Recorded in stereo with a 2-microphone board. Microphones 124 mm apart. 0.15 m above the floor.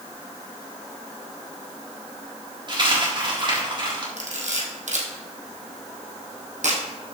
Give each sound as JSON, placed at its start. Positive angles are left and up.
{"t": 2.7, "sound": "a dropped coin", "side_deg": -35, "distance_m": 4.0}
{"t": 4.2, "sound": "a camera shutter", "side_deg": -70, "distance_m": 2.0}